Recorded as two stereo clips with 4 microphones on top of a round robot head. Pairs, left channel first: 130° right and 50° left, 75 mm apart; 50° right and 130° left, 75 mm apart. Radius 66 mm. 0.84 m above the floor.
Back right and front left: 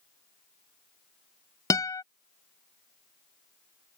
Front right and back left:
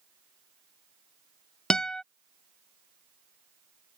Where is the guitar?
125° right.